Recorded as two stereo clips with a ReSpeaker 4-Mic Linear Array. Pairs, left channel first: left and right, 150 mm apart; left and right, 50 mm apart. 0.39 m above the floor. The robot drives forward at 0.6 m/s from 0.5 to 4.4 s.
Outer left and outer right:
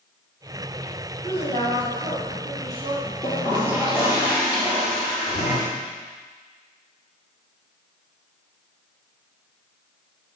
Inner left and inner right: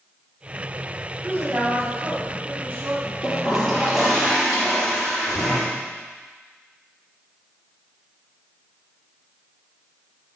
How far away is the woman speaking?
About 2 m.